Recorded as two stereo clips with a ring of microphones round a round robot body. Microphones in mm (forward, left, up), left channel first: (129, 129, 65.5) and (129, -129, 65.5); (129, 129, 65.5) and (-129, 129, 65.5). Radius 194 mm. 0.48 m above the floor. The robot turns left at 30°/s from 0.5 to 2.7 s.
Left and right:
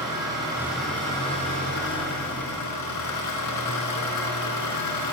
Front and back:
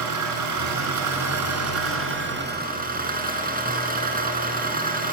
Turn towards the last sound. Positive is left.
turn(degrees=125)